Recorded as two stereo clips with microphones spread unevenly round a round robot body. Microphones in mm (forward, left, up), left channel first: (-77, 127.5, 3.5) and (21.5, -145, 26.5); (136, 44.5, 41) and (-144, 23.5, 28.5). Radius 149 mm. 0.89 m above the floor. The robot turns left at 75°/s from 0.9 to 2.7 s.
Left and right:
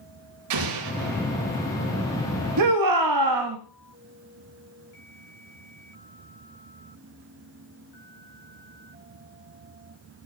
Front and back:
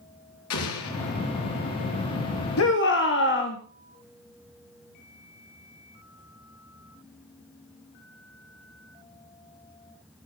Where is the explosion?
35° right, 4 m; by 1.3 s 70° right, 4 m.